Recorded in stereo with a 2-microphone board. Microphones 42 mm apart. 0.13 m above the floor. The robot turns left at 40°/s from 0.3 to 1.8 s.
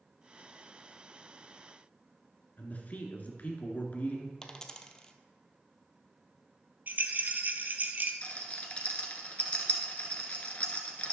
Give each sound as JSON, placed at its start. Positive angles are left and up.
{"t": 2.6, "sound": "a man speaking", "side_deg": 40, "distance_m": 1.7}
{"t": 4.4, "sound": "a dropped coin", "side_deg": 20, "distance_m": 0.8}
{"t": 6.9, "sound": "a rattle", "side_deg": -50, "distance_m": 0.9}
{"t": 8.2, "sound": "a rattle", "side_deg": 30, "distance_m": 1.4}